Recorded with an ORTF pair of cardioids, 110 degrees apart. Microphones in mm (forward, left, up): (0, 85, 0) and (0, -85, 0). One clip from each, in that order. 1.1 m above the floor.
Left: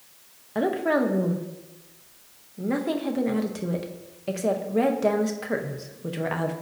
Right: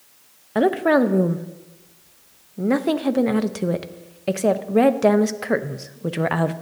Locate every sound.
0.6 s a woman speaking: 40° right, 0.8 m